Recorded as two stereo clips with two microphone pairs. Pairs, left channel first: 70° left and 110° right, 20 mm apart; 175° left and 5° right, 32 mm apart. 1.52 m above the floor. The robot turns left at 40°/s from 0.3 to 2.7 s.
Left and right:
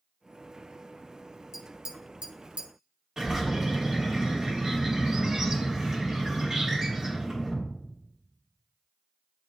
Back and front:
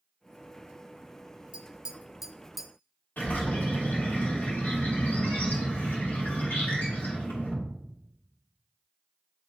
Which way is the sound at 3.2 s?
175° right.